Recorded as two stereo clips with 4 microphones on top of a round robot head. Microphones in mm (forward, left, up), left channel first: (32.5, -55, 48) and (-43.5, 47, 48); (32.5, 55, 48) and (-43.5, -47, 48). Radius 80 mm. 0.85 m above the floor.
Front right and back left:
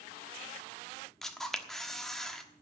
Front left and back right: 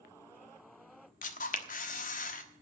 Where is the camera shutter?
35° left, 1.3 m.